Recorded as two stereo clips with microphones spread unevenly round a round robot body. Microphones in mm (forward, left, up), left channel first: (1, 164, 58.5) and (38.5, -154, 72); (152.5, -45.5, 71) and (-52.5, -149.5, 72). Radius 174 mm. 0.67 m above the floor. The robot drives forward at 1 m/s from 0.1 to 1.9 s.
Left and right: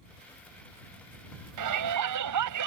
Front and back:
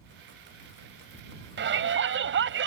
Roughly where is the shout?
Behind right.